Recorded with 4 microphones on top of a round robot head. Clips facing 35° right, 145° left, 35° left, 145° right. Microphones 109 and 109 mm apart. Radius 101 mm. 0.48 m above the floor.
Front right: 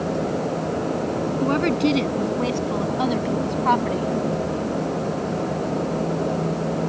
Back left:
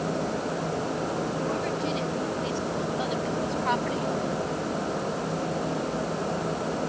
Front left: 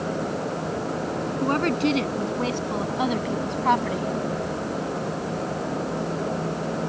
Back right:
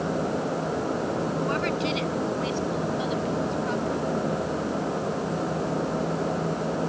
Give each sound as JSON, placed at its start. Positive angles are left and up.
{"t": 1.4, "sound": "a woman speaking", "azimuth_deg": -15}